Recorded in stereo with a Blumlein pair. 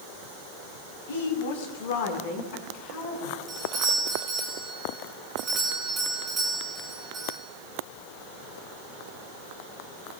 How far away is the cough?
I don't hear a cough.